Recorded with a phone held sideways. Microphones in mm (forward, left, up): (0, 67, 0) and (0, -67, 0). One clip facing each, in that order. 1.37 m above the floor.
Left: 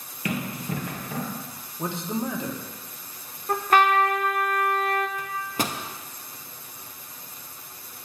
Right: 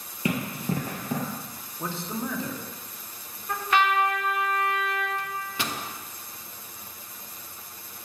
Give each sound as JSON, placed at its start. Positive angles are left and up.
{"t": 0.2, "sound": "running footsteps", "side_deg": -25, "distance_m": 1.8}
{"t": 1.8, "sound": "a man speaking", "side_deg": 20, "distance_m": 0.9}
{"t": 3.5, "sound": "a trumpet", "side_deg": 45, "distance_m": 0.5}
{"t": 5.2, "sound": "a microwave", "side_deg": 45, "distance_m": 0.5}